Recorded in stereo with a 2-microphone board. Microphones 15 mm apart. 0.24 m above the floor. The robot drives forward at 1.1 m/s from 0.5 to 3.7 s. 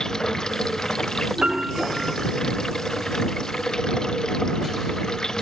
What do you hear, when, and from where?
0.0 s running water: 45° left (ahead or behind); by 5.4 s 50° left (ahead or behind)
1.4 s a piano: 70° right (ahead or behind); by 2.2 s 75° right (ahead or behind)